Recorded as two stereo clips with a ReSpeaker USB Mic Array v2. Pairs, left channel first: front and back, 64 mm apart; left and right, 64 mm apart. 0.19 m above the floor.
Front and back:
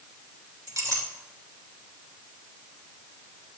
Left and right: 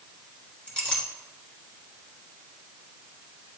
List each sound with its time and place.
0.7 s a clink: 165° left, 1.6 m